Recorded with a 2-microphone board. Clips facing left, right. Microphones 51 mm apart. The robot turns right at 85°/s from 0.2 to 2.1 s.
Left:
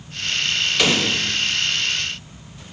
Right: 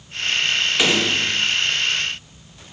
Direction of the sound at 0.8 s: 165° right.